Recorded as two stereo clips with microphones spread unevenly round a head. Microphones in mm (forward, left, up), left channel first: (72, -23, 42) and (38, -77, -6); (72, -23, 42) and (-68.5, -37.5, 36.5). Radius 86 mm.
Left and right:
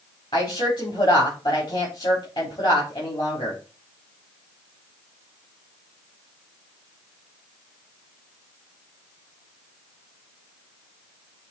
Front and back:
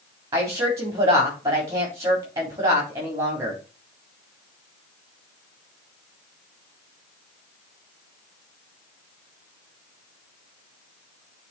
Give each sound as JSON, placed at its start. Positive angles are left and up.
{"t": 0.3, "sound": "a woman speaking", "azimuth_deg": 115, "distance_m": 3.5}